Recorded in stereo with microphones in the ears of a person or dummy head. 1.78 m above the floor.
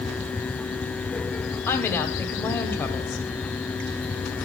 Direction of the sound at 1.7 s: 10° left (ahead or behind).